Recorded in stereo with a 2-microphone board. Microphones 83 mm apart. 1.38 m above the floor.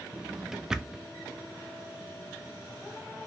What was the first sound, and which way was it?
A drawer, 5° right (ahead or behind).